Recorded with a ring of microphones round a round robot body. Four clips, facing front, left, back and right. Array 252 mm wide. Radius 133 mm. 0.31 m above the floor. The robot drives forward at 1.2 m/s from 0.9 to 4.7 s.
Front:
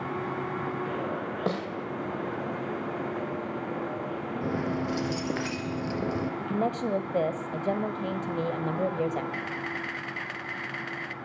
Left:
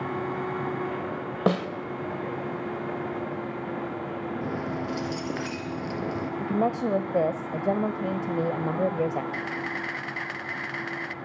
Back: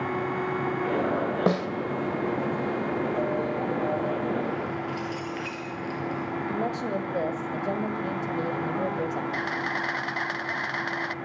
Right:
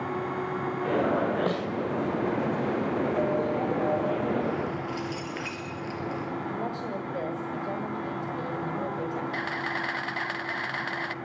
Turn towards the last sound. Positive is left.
turn(degrees=-155)